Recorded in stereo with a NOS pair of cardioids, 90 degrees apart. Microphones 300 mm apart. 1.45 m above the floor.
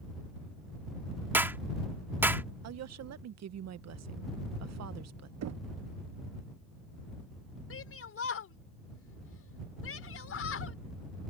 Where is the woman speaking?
60° right.